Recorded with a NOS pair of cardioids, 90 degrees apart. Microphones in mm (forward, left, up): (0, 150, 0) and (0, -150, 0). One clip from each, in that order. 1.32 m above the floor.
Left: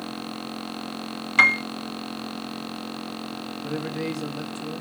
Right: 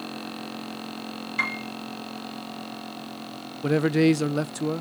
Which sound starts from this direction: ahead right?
A man speaking, at 3.6 s.